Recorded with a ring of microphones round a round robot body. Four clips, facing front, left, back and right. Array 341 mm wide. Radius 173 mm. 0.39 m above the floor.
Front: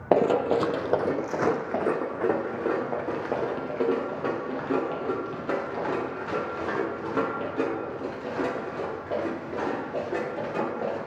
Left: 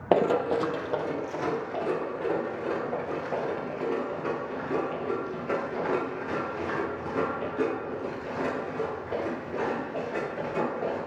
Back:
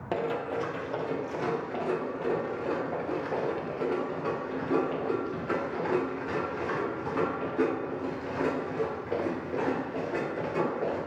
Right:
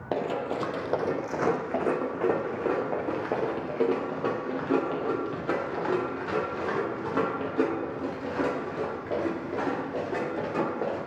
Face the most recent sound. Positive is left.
turn(degrees=-50)